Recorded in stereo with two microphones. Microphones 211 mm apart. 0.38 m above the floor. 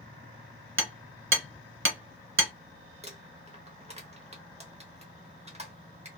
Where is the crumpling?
30° right (ahead or behind), 0.8 m.